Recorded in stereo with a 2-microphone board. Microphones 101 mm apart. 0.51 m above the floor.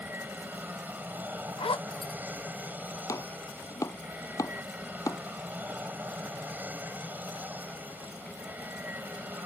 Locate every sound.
0.0 s an aircraft: 20° right (ahead or behind)
1.6 s a zipper: 60° left (ahead or behind)
3.1 s chopping: 35° left (ahead or behind)